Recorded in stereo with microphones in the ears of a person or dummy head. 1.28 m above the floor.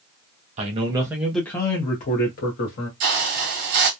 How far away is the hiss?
About 0.6 m.